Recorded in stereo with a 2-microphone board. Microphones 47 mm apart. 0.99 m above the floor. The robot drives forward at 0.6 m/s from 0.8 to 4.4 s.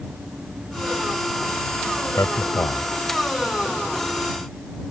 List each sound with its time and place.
2.2 s a man speaking: 85° left; by 2.9 s 80° left